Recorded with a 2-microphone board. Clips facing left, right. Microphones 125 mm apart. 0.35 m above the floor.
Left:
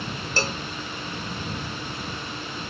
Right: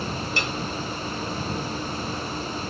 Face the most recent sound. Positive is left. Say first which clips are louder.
# left 5 dB
turn(degrees=35)  # may be behind; listen again after turning